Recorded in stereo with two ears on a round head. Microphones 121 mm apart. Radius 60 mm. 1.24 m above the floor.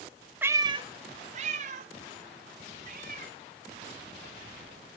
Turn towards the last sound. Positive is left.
turn(degrees=-70)  # may be behind; listen again after turning